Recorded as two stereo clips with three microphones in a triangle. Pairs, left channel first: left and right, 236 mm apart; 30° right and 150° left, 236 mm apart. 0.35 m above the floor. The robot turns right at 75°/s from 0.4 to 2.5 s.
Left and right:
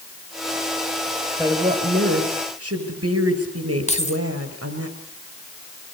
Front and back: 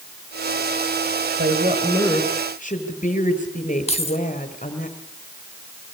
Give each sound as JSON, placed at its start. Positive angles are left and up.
{"t": 1.4, "sound": "a woman speaking", "azimuth_deg": -170, "distance_m": 5.5}
{"t": 3.9, "sound": "keys jangling", "azimuth_deg": 30, "distance_m": 1.9}